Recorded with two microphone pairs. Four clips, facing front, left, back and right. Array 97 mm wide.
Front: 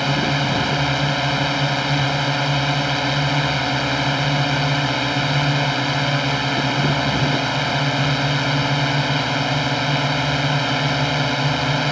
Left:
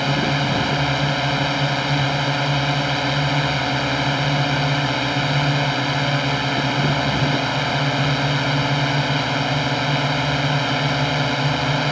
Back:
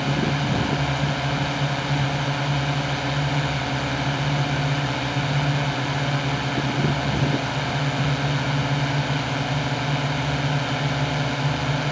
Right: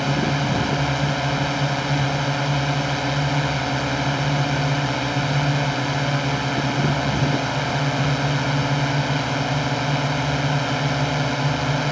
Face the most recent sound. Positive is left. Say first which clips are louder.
# left 1 dB, front 3 dB
turn(degrees=10)